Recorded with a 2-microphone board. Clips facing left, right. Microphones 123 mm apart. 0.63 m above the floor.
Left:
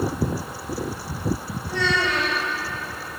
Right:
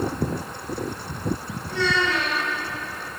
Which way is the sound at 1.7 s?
80° left.